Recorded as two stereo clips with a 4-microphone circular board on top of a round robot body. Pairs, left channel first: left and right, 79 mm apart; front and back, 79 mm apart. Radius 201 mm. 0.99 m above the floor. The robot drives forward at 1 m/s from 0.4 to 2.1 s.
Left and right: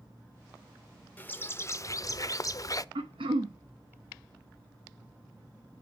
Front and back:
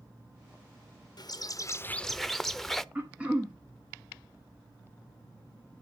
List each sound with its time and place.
1.2 s a bird: 25° left, 1.2 m; by 2.9 s 85° left, 0.7 m
3.0 s throat clearing: 100° right, 0.5 m